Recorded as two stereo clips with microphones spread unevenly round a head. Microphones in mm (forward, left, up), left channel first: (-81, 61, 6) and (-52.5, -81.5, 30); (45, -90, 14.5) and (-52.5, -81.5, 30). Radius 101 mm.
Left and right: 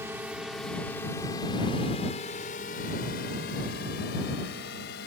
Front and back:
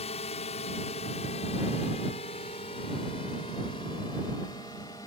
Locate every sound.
0.0 s a drone: straight ahead; by 5.1 s 70° left